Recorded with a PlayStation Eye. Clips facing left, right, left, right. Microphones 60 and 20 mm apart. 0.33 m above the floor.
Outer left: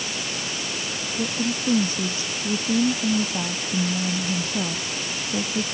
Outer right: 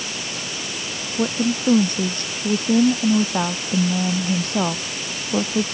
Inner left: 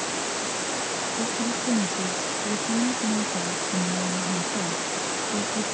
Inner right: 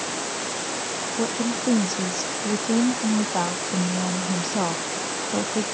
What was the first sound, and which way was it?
A woman speaking, 60° right (ahead or behind).